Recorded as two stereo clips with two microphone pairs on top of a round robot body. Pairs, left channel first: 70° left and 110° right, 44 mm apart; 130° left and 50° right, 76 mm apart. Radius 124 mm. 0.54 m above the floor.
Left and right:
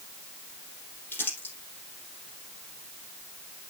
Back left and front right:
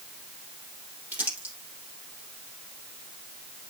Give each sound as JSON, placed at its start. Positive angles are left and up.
{"t": 1.1, "sound": "crumpling", "azimuth_deg": 20, "distance_m": 4.5}